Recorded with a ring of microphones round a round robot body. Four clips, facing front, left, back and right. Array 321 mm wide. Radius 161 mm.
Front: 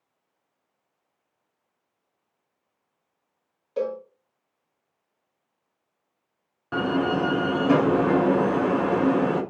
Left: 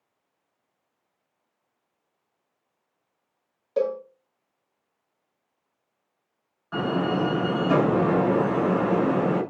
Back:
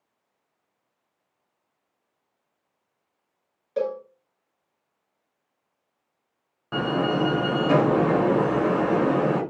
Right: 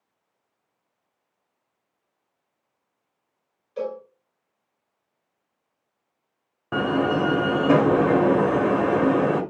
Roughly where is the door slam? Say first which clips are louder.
Right 3 dB, even; right.